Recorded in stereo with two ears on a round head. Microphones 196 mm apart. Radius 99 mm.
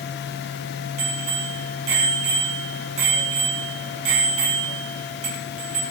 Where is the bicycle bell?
65° right (ahead or behind), 8.5 m.